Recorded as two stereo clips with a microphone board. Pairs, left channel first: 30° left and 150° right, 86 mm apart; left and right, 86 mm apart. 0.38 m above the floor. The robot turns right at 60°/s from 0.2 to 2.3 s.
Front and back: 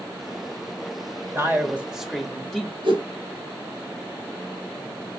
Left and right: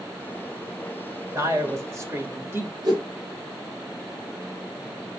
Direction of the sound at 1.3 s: 110° right.